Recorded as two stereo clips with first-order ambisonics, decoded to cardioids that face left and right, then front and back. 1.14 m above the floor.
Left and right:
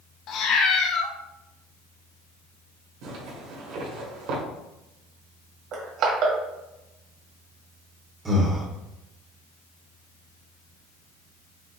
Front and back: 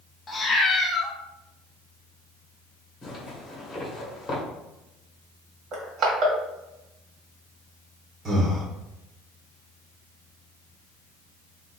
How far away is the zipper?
About 1.5 m.